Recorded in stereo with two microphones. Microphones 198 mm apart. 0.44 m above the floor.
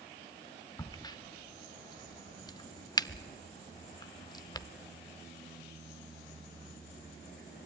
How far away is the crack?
About 0.5 m.